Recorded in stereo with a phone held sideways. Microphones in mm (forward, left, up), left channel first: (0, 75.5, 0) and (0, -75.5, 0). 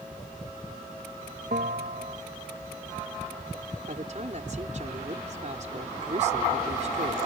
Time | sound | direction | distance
1.5 | a bell | 70° right (ahead or behind) | ?
3.9 | a man speaking | 50° right (ahead or behind) | ?